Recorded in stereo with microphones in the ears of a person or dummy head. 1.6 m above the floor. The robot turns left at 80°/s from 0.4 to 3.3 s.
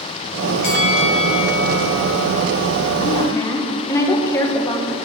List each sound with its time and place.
0.6 s a bell: 125° left, 1.4 m; by 2.3 s 5° right, 1.4 m
3.0 s a woman speaking: 40° left (ahead or behind), 1.2 m; by 5.0 s 20° left (ahead or behind), 1.2 m